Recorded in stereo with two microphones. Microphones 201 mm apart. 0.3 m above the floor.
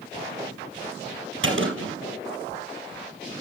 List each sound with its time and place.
1.4 s a gunshot: 80° right, 3.5 m